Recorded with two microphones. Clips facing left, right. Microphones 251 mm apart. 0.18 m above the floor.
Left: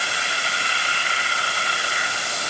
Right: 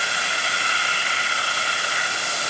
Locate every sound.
Only background noise.